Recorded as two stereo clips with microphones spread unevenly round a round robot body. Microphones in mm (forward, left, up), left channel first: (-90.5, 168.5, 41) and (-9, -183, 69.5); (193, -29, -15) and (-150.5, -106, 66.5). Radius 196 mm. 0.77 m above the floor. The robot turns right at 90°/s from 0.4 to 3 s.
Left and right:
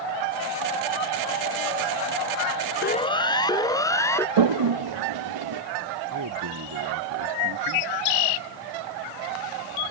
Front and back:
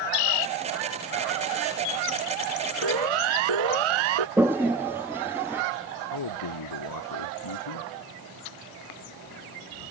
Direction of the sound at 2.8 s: 165° left.